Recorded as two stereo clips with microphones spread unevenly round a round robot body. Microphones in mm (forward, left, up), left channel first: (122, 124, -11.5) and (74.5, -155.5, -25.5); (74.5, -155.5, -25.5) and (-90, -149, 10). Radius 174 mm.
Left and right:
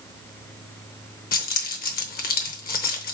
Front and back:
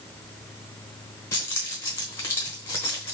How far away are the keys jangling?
About 0.9 m.